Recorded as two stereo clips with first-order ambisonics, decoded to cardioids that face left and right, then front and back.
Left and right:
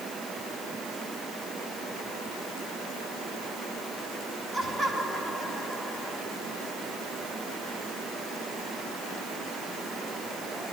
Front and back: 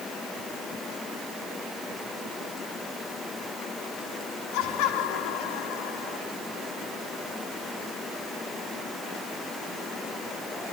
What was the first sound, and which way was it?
Laughter, 15° right.